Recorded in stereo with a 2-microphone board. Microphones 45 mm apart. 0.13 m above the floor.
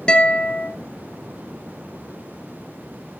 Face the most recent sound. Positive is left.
turn(degrees=20)  # may be behind; listen again after turning